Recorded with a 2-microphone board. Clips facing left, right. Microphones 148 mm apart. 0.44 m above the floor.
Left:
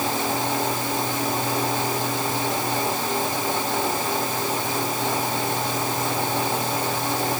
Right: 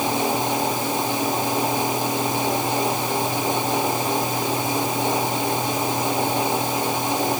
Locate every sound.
Only background noise.